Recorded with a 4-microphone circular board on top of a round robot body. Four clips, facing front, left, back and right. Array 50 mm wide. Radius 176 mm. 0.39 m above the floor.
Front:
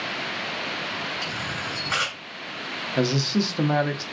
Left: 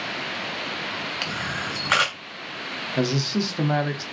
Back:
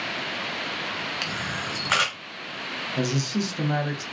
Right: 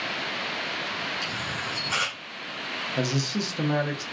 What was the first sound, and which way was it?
A camera shutter, 120° left.